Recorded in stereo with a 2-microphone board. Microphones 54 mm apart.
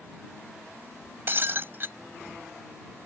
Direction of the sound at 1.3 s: 45° right (ahead or behind).